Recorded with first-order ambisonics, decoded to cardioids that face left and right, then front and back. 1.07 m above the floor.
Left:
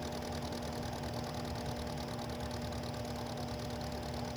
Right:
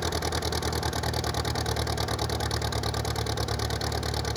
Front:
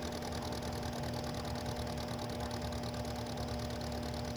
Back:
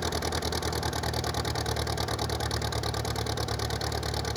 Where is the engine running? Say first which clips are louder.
Right 11 dB, back 10 dB; 130° right.